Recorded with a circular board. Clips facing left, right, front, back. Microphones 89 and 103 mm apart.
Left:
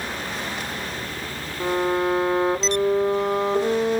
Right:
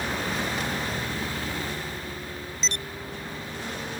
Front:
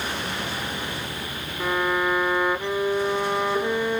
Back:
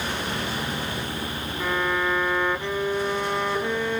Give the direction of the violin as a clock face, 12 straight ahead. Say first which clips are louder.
Left 13 dB, front 2 dB; 9 o'clock.